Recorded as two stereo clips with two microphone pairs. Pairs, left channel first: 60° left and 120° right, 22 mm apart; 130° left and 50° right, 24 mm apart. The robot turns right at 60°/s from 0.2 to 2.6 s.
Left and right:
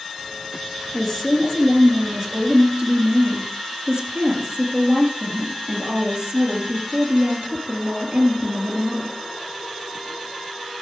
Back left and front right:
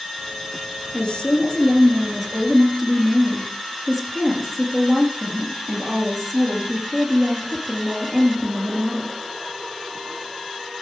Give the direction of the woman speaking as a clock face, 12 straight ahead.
8 o'clock.